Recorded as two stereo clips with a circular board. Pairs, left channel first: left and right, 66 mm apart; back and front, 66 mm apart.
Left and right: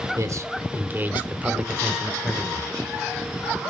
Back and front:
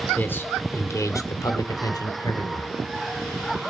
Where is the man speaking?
120° right, 1.8 m; by 2.7 s 175° left, 2.5 m.